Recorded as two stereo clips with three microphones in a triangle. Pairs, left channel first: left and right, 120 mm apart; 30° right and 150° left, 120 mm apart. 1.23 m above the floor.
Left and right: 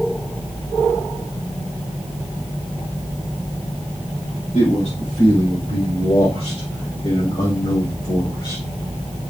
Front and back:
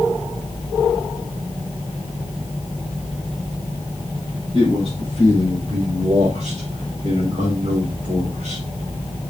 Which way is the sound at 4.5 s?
115° left.